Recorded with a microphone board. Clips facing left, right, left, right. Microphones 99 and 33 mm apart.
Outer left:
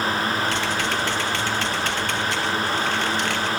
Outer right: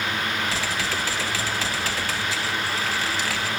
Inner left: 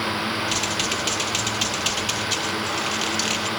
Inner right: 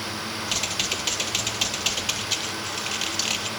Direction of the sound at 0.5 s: Centre (ahead or behind).